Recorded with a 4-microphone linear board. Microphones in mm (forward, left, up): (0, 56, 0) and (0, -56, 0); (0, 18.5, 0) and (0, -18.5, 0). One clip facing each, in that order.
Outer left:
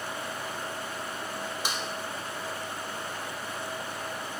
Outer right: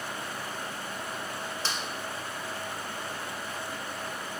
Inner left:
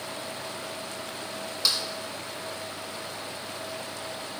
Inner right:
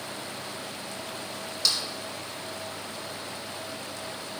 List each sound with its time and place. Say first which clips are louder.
1.6 s a snare drum: outer left 1 dB, inner left 1 dB; 15° left (ahead or behind), 0.9 m